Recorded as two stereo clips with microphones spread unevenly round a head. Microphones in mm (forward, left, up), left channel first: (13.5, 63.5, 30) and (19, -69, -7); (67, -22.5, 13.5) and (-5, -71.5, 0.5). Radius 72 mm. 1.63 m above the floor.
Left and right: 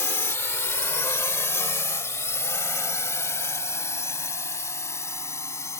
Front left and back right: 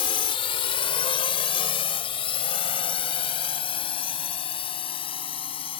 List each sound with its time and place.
0.0 s a drone: 20° left; by 5.8 s 25° left